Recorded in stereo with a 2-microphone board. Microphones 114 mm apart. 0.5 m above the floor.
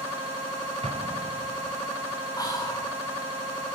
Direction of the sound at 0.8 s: 60° right (ahead or behind).